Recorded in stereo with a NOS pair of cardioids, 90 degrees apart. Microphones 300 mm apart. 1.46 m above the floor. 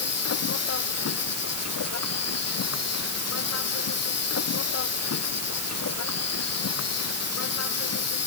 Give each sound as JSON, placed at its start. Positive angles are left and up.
{"t": 0.0, "sound": "an insect", "azimuth_deg": 50}